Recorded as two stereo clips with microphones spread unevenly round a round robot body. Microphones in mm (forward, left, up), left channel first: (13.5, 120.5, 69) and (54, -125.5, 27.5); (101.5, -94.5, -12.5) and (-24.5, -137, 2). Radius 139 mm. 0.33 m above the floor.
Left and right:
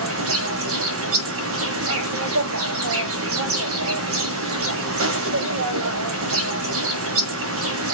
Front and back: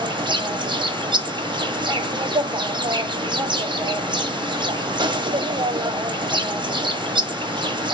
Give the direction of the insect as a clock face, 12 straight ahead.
3 o'clock.